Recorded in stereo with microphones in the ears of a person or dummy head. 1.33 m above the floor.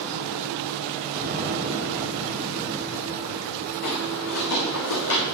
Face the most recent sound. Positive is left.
turn(degrees=65)  # may be behind; listen again after turning